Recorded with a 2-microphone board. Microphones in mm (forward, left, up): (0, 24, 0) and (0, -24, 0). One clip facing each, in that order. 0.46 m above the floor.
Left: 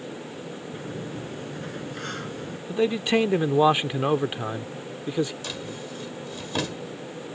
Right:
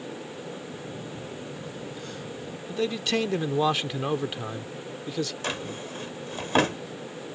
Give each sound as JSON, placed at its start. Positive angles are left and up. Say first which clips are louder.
{"t": 0.7, "sound": "a sliding door", "louder": "left 3 dB", "side_deg": 55}
{"t": 2.7, "sound": "a man speaking", "louder": "left 5 dB", "side_deg": 20}
{"t": 5.4, "sound": "a drawer", "louder": "right 2 dB", "side_deg": -45}